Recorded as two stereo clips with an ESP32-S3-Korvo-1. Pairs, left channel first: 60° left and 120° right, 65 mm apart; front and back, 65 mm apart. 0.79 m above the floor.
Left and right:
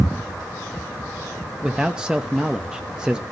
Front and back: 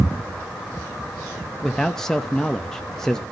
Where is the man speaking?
70° right, 0.7 m.